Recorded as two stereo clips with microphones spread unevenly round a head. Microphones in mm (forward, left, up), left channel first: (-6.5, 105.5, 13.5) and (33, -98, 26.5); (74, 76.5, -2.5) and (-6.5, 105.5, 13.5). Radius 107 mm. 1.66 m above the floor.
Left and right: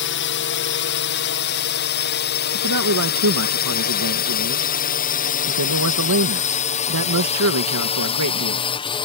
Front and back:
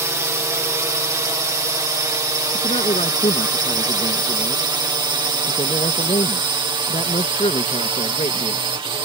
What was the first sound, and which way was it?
A drone, 105° left.